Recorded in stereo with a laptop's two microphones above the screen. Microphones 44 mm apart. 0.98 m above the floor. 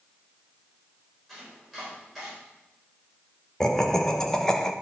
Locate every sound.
1.3 s chopping: 5° left (ahead or behind), 3.5 m
3.6 s laughter: 15° left (ahead or behind), 0.6 m